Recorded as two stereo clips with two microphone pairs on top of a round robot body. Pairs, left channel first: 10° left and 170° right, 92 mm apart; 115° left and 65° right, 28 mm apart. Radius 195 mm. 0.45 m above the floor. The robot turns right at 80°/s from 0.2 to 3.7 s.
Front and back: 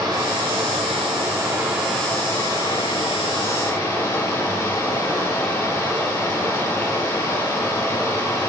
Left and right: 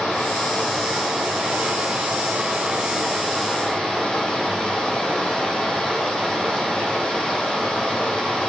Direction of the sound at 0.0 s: 145° left.